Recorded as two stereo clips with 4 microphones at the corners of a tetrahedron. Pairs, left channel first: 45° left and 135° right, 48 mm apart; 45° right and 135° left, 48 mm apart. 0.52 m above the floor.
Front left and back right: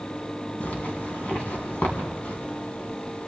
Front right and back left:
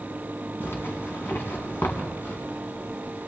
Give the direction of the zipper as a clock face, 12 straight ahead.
12 o'clock.